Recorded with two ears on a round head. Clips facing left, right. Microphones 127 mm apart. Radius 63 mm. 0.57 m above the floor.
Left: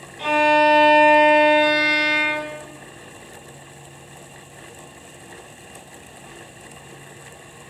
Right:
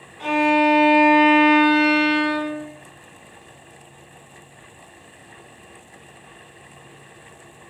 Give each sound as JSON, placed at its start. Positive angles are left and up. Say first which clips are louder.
{"t": 0.2, "sound": "a violin", "louder": "left 1 dB", "side_deg": 35, "distance_m": 1.7}